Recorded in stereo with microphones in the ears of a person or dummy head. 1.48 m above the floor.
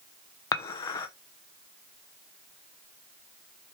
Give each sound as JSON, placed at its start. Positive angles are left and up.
{"t": 0.5, "sound": "dishes clattering", "side_deg": 20, "distance_m": 0.6}